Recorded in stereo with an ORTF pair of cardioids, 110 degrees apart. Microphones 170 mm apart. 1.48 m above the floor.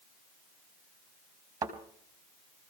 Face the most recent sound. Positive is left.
turn(degrees=-20)